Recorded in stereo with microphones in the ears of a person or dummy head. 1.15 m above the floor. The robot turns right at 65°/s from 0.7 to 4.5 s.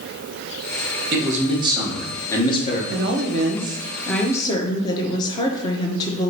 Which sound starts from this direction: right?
A woman speaking, at 2.9 s.